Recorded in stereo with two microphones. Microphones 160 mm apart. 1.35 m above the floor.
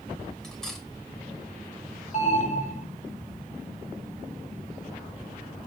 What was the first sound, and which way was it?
Cutlery clinking, 5° left (ahead or behind).